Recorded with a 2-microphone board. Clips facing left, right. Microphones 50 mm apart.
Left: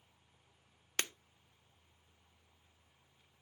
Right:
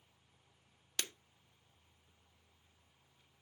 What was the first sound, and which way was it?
Breaking glass, 40° left (ahead or behind).